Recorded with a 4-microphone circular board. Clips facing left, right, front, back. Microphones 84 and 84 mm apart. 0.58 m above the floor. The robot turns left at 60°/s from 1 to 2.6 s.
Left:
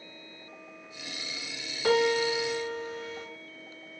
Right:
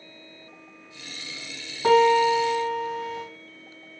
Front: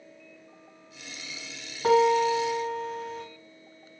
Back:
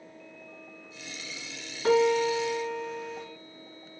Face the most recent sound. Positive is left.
turn(degrees=-90)